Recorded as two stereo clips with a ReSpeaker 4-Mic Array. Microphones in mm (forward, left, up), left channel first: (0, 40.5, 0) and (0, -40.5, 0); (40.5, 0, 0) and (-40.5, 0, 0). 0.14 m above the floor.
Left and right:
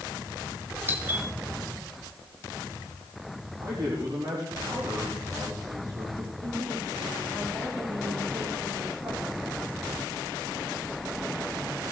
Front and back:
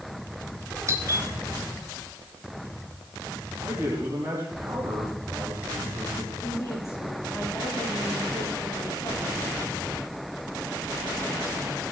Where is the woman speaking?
55° right, 9 m.